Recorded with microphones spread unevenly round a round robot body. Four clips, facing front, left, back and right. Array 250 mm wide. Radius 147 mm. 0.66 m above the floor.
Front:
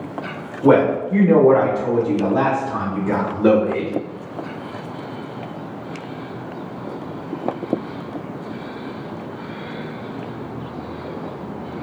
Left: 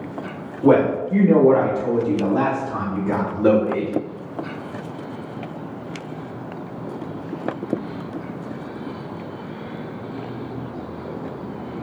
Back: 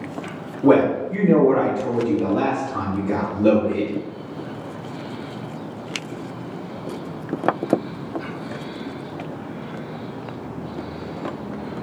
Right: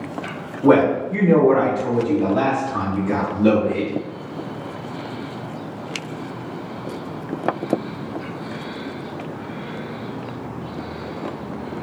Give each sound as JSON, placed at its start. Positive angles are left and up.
{"t": 0.6, "sound": "a man speaking", "azimuth_deg": 140, "distance_m": 1.7}